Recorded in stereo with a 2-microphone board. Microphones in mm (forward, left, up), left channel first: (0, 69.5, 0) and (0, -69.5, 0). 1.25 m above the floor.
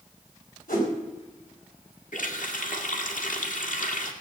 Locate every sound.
0.7 s a whoosh: 85° left, 4.5 m
2.1 s a running tap: 70° left (ahead or behind), 1.9 m